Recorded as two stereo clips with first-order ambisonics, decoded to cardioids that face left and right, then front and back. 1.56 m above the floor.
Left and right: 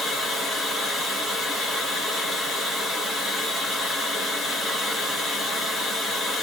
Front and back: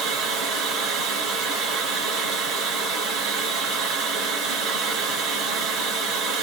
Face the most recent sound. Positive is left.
turn(degrees=155)